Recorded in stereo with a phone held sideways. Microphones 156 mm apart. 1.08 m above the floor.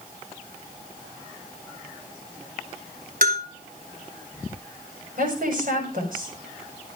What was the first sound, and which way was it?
A bell, 65° right (ahead or behind).